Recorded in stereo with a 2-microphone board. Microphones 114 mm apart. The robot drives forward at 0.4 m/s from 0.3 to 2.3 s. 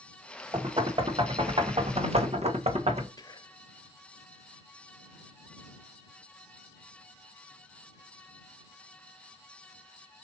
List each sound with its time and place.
0.5 s knocking: 45° right (ahead or behind), 1.6 m; by 3.1 s 70° right (ahead or behind), 1.2 m
3.2 s whispering: 35° left (ahead or behind), 0.6 m